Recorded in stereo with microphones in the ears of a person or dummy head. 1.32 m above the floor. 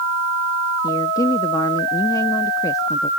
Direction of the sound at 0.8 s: 15° left (ahead or behind).